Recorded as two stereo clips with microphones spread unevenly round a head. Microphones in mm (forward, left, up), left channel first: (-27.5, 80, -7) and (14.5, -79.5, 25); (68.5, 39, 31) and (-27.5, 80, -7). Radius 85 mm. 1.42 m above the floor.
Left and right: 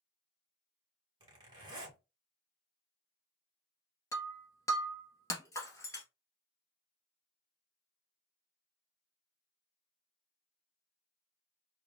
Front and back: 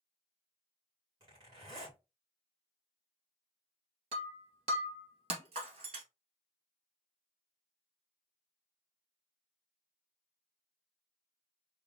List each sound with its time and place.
1.2 s a zipper: 145° right, 2.5 m
4.1 s breaking glass: straight behind, 1.6 m